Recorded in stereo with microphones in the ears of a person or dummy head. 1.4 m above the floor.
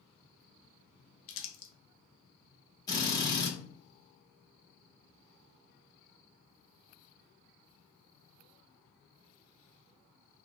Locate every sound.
1.3 s crumpling: 65° left (ahead or behind), 0.5 m
2.9 s a drill: 20° left (ahead or behind), 1.3 m